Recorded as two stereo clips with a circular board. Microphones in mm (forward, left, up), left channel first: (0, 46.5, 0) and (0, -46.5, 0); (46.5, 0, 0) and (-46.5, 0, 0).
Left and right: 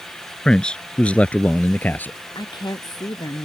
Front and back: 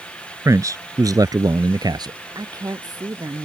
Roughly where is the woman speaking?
Behind left.